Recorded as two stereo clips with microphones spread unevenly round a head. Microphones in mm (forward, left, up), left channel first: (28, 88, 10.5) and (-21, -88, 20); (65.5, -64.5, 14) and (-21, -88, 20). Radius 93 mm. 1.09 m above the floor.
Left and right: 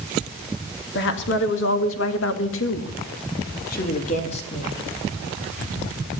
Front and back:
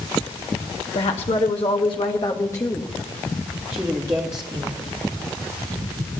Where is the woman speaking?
45° left, 1.9 m; by 4.8 s 140° left, 2 m.